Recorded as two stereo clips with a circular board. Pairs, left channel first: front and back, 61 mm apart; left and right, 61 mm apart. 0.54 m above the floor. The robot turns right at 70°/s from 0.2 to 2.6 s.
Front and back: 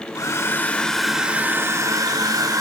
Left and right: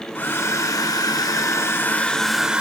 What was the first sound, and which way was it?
A hair dryer, 30° left.